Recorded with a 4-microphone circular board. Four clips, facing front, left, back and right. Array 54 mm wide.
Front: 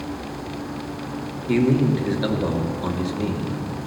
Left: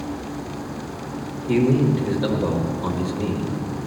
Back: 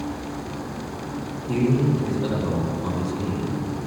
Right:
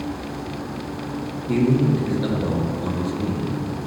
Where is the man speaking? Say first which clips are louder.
Left 1 dB, front 3 dB; 15° left, 2 m.